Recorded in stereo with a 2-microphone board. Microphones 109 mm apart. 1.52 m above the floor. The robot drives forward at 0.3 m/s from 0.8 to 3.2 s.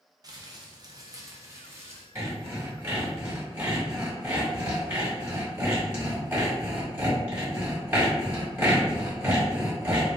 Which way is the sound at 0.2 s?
35° right (ahead or behind).